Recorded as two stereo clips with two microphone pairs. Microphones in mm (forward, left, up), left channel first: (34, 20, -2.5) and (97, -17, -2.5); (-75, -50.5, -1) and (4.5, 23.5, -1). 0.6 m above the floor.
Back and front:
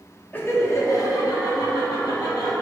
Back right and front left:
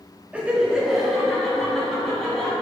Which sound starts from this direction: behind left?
Laughter, at 0.3 s.